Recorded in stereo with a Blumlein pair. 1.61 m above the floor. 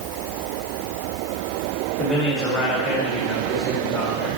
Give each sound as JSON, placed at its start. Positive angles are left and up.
{"t": 2.0, "sound": "a man speaking", "azimuth_deg": 10, "distance_m": 2.5}